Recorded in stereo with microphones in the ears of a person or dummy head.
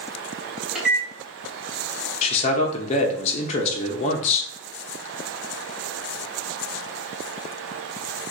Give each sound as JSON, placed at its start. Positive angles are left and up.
{"t": 0.8, "sound": "a microwave", "side_deg": -5, "distance_m": 1.5}
{"t": 2.2, "sound": "a man speaking", "side_deg": 35, "distance_m": 1.0}